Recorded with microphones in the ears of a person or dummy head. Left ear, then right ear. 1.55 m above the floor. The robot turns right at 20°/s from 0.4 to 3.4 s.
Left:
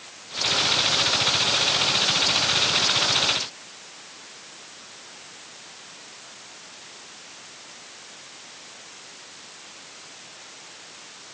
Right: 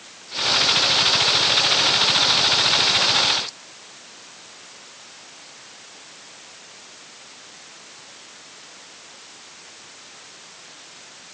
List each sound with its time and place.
Only background noise.